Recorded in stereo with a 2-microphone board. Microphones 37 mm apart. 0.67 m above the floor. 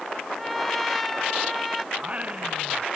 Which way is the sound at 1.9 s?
30° right (ahead or behind).